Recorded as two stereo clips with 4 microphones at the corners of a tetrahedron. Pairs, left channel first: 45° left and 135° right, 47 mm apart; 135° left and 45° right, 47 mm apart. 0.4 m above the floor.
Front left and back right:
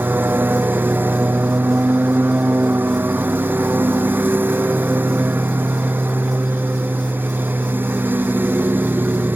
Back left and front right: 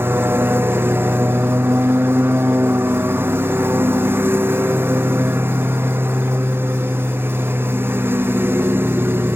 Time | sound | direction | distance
0.0 | a lawn mower | 90° right | ?